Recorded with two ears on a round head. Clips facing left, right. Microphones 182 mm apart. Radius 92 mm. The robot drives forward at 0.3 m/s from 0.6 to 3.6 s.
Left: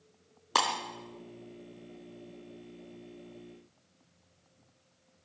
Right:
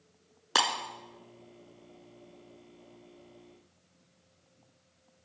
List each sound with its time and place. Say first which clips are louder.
0.6 s breaking glass: even; 10° right (ahead or behind), 1.8 m